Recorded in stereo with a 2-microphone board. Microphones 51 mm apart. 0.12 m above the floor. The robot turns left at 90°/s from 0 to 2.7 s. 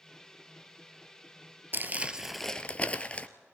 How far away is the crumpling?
About 0.8 m.